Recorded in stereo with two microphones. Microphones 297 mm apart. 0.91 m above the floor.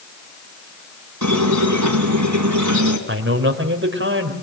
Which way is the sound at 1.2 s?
75° right (ahead or behind).